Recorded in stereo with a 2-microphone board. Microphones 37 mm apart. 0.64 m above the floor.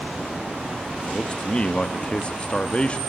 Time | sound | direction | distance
1.1 | a man speaking | 30° left (ahead or behind) | 0.8 m